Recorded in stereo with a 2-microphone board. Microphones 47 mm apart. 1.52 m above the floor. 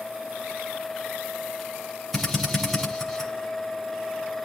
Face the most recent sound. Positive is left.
turn(degrees=0)  # may be behind; listen again after turning